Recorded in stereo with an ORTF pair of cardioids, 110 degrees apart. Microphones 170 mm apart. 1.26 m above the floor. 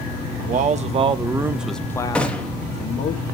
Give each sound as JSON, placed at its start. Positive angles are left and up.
{"t": 0.4, "sound": "a man speaking", "azimuth_deg": -55, "distance_m": 1.1}
{"t": 2.1, "sound": "a gunshot", "azimuth_deg": 5, "distance_m": 1.4}